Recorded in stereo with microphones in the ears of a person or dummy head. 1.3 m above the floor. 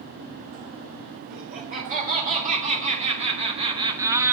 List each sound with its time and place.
1.3 s laughter: 45° right (ahead or behind), 4.5 m; by 4.3 s 10° right (ahead or behind), 1.1 m